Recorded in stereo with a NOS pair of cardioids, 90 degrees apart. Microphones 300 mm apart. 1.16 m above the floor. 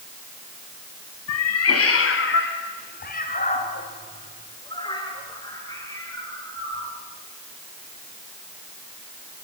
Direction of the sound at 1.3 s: 65° left.